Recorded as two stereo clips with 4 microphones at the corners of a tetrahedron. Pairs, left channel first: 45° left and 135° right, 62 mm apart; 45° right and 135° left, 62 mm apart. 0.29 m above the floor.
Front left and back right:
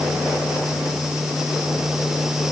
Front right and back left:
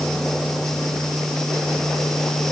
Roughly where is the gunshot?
No gunshot in this recording.